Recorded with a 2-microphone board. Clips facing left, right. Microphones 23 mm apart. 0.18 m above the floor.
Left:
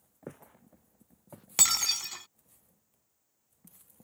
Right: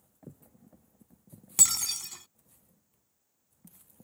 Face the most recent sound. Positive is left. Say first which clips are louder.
# left 1 dB
turn(degrees=30)  # may be behind; listen again after turning